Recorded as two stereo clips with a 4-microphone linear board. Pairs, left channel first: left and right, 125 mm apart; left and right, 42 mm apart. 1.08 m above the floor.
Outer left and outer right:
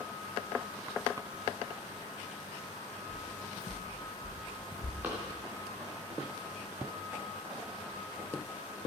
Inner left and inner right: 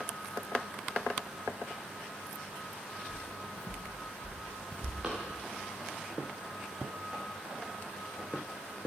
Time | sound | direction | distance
3.1 | footsteps | 20° left (ahead or behind) | 2 m
5.0 | running footsteps | 15° right (ahead or behind) | 5.5 m